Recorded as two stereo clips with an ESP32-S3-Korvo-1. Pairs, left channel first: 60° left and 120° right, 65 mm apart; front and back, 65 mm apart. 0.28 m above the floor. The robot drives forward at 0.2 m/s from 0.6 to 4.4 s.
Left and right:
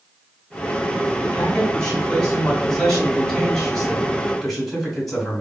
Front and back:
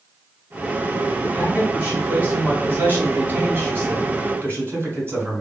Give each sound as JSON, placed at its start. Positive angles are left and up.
{"t": 1.2, "sound": "a man speaking", "azimuth_deg": 125, "distance_m": 1.9}